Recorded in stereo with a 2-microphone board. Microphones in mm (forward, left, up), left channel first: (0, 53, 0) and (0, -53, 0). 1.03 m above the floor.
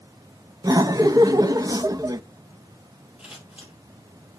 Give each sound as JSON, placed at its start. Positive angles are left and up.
{"t": 0.6, "sound": "laughter", "side_deg": -35, "distance_m": 0.6}
{"t": 3.2, "sound": "scissors", "side_deg": -10, "distance_m": 5.5}